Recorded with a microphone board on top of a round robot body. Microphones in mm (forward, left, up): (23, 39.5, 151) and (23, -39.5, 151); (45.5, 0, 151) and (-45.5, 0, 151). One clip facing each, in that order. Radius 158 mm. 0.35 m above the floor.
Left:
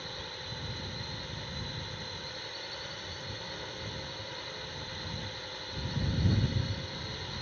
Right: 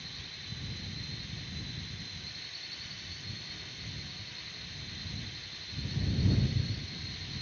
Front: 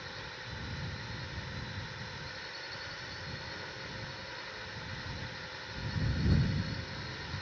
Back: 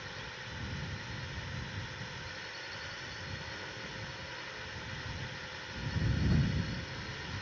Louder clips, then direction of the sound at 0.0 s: Left 7 dB, even; 85° left.